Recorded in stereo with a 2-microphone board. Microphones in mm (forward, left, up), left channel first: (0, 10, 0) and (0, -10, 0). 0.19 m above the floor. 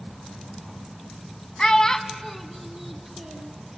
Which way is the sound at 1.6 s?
35° left (ahead or behind).